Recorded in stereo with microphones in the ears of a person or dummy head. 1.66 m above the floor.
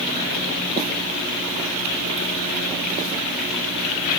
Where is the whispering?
No whispering in this recording.